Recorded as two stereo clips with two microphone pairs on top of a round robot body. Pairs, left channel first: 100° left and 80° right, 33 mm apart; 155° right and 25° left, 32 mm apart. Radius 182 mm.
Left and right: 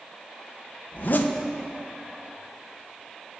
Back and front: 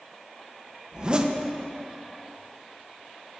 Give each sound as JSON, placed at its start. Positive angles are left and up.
{"t": 0.9, "sound": "a zipper", "azimuth_deg": 85, "distance_m": 1.0}